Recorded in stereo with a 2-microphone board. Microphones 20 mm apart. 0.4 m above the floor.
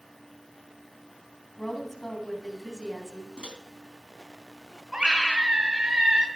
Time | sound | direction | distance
1.6 | a woman speaking | 15° left (ahead or behind) | 3 m
3.4 | a microwave | 55° right (ahead or behind) | 2.5 m
4.9 | a scream | 50° right (ahead or behind) | 2 m